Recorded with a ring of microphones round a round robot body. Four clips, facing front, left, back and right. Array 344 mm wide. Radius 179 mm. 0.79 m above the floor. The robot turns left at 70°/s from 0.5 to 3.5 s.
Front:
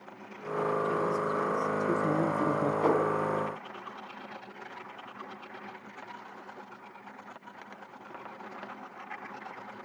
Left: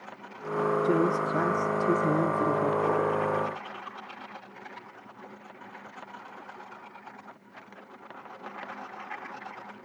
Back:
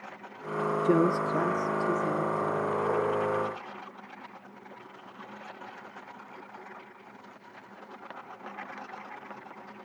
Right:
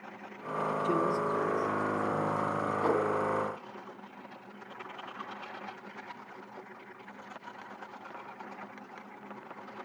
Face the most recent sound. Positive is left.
turn(degrees=-55)